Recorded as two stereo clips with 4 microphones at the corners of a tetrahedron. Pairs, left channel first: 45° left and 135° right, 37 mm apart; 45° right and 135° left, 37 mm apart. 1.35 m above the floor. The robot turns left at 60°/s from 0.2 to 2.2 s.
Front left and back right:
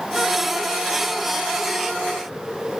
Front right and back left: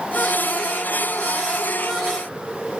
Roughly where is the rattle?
No rattle in this recording.